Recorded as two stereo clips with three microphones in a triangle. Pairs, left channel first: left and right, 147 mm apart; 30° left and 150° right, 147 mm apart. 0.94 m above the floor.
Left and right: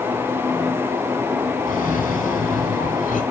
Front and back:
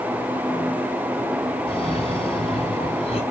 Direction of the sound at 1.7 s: 75° left.